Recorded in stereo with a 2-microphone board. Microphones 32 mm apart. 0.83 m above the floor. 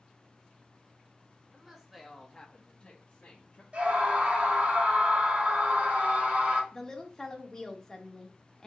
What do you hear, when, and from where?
1.5 s a woman speaking: 20° right (ahead or behind), 1.3 m; by 3.6 s 60° left (ahead or behind), 1.5 m
3.7 s a scream: 45° right (ahead or behind), 2.0 m
6.7 s a woman speaking: 15° left (ahead or behind), 1.0 m